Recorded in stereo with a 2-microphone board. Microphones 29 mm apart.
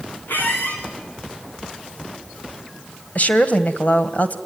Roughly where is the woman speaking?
Left.